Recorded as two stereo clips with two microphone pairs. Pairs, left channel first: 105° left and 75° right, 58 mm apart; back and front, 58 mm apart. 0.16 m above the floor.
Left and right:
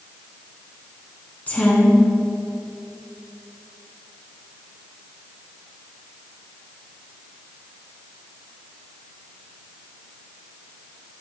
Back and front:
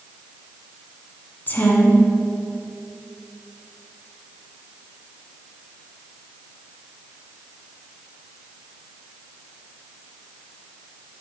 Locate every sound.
1.5 s a woman speaking: 150° left, 1.3 m